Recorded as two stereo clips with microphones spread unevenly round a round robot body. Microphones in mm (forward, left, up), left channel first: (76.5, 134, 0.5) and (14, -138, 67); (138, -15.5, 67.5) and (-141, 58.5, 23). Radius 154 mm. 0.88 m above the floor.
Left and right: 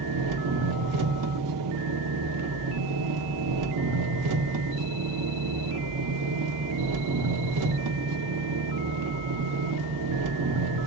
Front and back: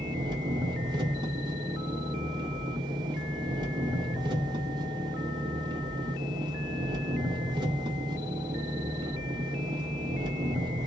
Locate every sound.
0.0 s an engine running: 115° right, 0.8 m